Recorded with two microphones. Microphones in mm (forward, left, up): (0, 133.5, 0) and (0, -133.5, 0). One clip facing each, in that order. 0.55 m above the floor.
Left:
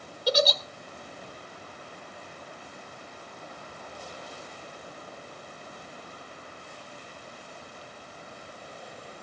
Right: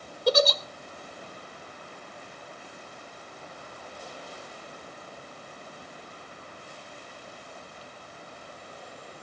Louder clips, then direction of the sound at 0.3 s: Right 3 dB; 55° right (ahead or behind).